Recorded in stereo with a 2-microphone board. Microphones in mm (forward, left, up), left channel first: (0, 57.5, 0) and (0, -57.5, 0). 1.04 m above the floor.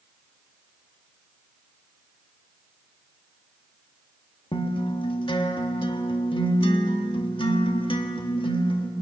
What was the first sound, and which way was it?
A guitar, 50° left (ahead or behind).